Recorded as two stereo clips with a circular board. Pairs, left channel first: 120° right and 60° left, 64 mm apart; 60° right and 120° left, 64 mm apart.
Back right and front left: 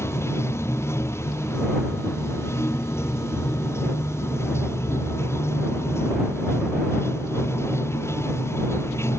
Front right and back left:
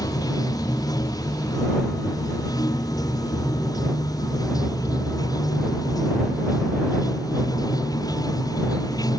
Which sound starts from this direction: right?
Running water, at 0.0 s.